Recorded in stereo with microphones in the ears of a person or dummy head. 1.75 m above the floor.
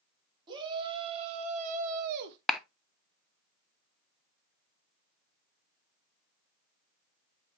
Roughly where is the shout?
Right.